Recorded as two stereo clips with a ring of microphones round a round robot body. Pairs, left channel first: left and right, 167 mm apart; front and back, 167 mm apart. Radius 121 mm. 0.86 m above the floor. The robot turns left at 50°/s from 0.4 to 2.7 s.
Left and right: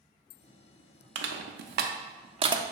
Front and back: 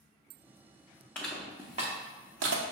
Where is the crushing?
85° right, 0.5 m; by 2.6 s 155° right, 0.5 m.